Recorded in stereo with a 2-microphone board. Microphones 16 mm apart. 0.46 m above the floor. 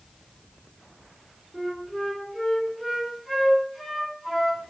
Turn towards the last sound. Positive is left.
turn(degrees=-15)  # may be behind; listen again after turning